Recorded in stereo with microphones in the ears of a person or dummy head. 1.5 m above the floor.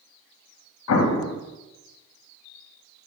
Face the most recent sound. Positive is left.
turn(degrees=75)  # may be behind; listen again after turning